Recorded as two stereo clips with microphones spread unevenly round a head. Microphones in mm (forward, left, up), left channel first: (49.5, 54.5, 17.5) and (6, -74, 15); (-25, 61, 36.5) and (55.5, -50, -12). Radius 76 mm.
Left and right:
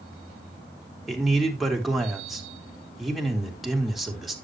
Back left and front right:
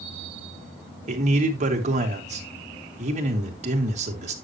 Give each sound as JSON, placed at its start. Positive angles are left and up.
{"t": 1.1, "sound": "a man speaking", "azimuth_deg": -20, "distance_m": 2.5}